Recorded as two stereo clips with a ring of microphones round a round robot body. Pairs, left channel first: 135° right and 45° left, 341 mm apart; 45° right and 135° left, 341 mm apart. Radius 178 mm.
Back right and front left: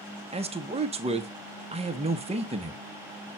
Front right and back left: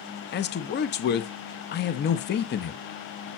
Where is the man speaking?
15° right, 0.8 m.